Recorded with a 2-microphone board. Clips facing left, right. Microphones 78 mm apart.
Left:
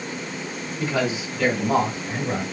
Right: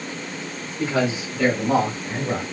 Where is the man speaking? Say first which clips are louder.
Right 2 dB; 25° right (ahead or behind), 1.4 m; by 2.4 s 20° right (ahead or behind), 1.8 m.